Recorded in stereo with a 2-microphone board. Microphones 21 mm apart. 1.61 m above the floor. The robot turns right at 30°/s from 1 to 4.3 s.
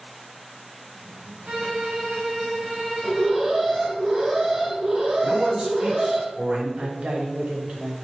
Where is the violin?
65° right, 0.7 m; by 3.5 s 5° right, 0.7 m.